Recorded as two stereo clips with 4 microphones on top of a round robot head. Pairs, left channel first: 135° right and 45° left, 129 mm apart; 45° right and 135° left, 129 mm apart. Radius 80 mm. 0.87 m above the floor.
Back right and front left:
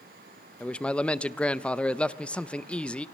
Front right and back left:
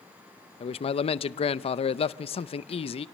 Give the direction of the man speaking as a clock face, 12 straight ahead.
2 o'clock.